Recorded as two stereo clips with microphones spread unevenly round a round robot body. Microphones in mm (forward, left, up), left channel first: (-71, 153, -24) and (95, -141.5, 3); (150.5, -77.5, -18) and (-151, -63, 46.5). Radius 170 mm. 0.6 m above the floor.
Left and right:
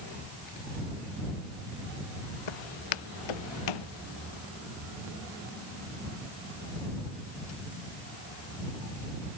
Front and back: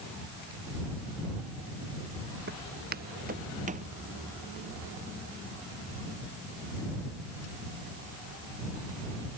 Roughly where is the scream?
No scream in this recording.